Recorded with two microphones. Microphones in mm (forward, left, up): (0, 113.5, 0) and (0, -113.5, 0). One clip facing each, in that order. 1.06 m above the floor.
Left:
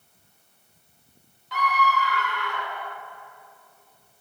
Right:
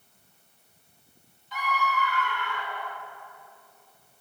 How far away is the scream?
About 1.7 m.